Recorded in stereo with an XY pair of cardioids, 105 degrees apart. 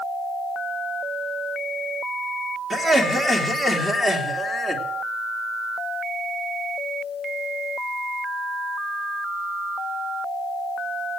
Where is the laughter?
10° right, 3 m.